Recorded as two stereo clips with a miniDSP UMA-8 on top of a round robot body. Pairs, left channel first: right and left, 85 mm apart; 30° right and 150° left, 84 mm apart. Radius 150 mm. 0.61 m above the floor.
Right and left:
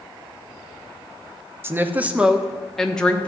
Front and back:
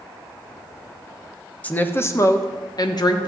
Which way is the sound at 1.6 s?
35° left.